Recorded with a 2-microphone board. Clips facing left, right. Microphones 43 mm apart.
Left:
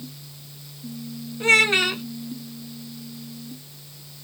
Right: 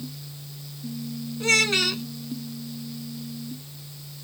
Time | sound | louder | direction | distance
1.4 | a child speaking | left 4 dB | 25° left (ahead or behind) | ?